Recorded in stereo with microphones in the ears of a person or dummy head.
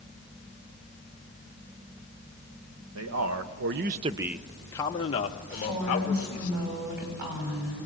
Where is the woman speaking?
50° right (ahead or behind), 7.5 m.